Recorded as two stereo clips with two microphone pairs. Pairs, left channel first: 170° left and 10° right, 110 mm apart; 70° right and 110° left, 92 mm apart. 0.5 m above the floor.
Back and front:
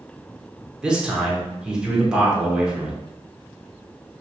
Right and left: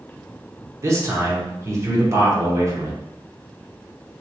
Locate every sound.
0.8 s a man speaking: 70° left, 1.0 m